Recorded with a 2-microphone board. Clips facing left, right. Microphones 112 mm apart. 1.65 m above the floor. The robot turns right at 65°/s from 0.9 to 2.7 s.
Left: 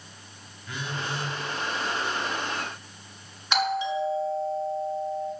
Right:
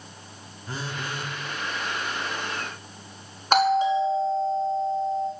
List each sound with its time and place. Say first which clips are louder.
0.7 s a phone buzzing: even; 40° right (ahead or behind), 2 m; by 1.3 s 60° right (ahead or behind), 2 m
3.5 s a doorbell: right 6 dB; 45° right (ahead or behind), 5.5 m